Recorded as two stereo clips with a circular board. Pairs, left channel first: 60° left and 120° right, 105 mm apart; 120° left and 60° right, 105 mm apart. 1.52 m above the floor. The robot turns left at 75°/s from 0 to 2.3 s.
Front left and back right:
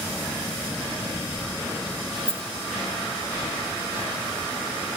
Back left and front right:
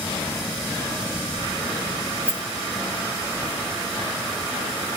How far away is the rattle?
About 2 m.